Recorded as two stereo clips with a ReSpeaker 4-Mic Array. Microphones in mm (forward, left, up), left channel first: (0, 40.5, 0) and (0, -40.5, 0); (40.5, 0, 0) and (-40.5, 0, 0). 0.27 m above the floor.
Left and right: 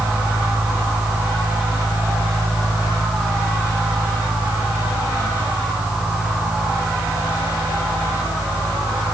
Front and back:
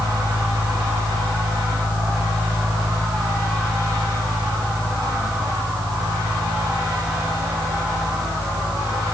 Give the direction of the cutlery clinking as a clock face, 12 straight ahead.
I don't hear cutlery clinking.